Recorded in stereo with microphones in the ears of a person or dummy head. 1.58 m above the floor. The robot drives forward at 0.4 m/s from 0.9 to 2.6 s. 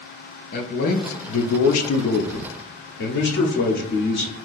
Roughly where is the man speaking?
Left.